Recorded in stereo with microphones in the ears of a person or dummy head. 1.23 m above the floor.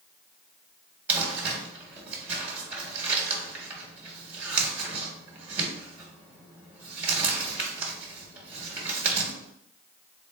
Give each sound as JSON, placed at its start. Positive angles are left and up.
{"t": 1.1, "sound": "crumpling", "side_deg": -10, "distance_m": 1.4}